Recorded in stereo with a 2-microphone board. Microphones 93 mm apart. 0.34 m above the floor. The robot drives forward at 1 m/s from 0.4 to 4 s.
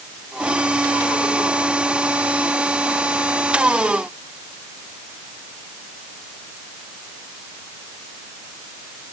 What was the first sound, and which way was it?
Only background noise.